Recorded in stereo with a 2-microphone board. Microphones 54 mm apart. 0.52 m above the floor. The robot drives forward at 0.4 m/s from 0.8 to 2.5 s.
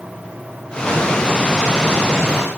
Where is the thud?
I don't hear a thud.